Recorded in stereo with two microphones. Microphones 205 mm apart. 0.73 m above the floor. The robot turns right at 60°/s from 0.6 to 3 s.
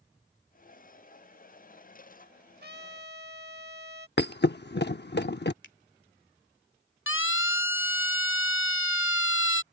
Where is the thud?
55° left (ahead or behind).